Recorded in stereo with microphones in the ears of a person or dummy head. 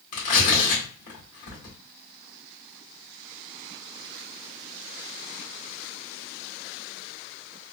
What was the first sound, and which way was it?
Tearing paper, 50° left (ahead or behind).